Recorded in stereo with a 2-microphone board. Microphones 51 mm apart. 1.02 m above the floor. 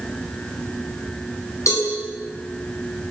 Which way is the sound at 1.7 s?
85° left.